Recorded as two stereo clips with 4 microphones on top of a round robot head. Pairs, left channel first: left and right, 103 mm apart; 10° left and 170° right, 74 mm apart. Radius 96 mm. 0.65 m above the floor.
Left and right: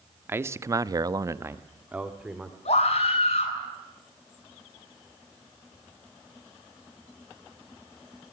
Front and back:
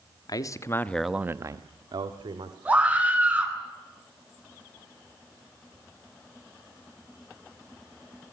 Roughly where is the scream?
Behind left.